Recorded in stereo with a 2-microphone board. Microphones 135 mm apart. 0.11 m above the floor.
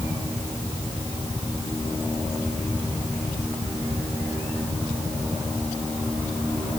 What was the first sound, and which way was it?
Only background noise.